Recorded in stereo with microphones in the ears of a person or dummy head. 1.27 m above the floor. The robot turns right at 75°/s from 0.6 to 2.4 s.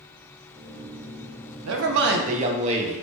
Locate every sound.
1.6 s a man speaking: 95° right, 0.7 m; by 3.0 s 35° right, 0.7 m